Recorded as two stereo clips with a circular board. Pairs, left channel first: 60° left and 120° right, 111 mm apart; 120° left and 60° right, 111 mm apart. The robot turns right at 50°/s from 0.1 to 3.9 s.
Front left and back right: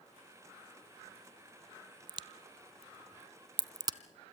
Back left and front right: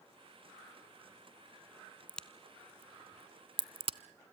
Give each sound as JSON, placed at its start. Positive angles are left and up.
{"t": 2.1, "sound": "a crack", "azimuth_deg": -165, "distance_m": 0.7}